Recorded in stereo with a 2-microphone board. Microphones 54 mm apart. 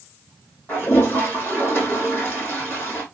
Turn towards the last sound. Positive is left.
turn(degrees=35)  # may be behind; listen again after turning